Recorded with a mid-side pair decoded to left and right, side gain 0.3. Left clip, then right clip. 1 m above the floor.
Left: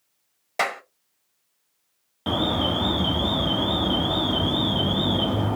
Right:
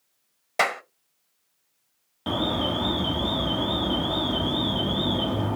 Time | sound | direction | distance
0.6 | a clap | 15° right | 0.7 m
2.3 | an alarm | 30° left | 0.6 m